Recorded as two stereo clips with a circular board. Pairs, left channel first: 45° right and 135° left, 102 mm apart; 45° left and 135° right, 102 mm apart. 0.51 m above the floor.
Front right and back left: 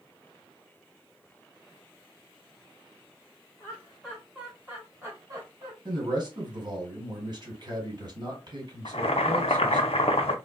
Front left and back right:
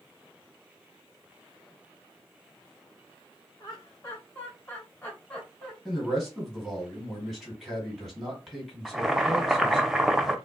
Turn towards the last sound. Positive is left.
turn(degrees=-50)